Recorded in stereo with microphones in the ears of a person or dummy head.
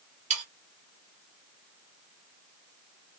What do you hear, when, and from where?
0.3 s sawing: 40° right (ahead or behind), 1.1 m